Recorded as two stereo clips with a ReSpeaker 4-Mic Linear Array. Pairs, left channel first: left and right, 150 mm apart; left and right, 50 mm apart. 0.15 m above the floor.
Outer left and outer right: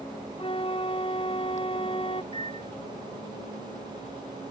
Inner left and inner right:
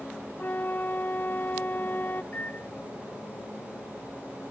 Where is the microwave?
35° left (ahead or behind).